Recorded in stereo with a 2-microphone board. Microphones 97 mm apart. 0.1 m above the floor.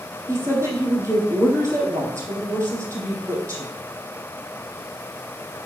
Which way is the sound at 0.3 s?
30° right (ahead or behind).